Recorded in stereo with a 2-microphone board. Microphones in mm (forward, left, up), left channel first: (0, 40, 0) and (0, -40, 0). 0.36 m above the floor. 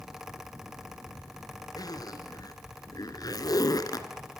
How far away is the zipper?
About 2 m.